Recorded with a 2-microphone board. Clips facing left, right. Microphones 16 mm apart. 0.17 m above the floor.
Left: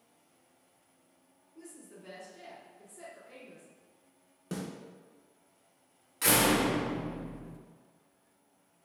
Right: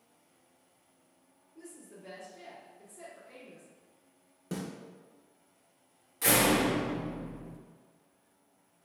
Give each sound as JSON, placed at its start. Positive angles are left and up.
{"t": 1.6, "sound": "a woman speaking", "side_deg": 25, "distance_m": 1.9}
{"t": 4.5, "sound": "a snare drum", "side_deg": 15, "distance_m": 1.2}
{"t": 6.2, "sound": "a door slam", "side_deg": 35, "distance_m": 1.5}